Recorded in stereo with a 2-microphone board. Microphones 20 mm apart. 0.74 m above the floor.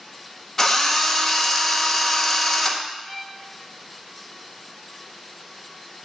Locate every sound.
0.6 s a drill: 25° left (ahead or behind), 0.7 m
3.0 s a violin: 20° left (ahead or behind), 2 m